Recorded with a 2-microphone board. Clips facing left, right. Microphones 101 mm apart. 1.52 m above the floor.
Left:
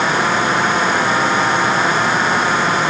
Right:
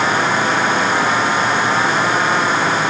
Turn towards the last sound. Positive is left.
No sound to turn to.